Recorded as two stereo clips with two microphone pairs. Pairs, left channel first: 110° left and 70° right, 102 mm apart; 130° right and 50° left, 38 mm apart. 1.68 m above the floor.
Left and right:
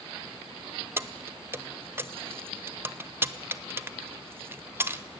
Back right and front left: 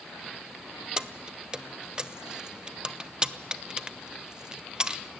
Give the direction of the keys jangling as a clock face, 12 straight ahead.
12 o'clock.